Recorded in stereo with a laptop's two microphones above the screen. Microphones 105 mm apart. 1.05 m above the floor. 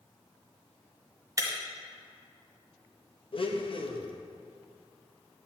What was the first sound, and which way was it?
Breaking glass, 30° right (ahead or behind).